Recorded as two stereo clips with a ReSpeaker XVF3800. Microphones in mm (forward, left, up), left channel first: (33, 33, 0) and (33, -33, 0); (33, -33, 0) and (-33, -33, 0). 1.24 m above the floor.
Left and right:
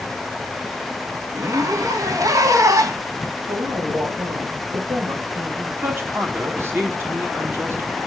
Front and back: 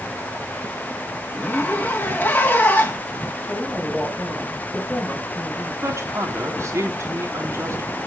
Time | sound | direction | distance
1.3 | a zipper | 60° right | 1.8 m
3.5 | a woman speaking | 70° right | 5.5 m
5.8 | a man speaking | 140° right | 4 m